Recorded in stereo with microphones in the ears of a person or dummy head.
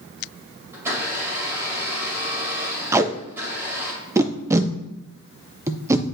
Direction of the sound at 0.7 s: 15° right (ahead or behind).